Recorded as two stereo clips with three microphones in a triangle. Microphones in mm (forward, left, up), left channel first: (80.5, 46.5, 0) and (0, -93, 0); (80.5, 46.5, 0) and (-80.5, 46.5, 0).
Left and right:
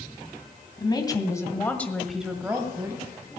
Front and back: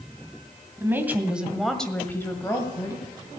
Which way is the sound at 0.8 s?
110° left.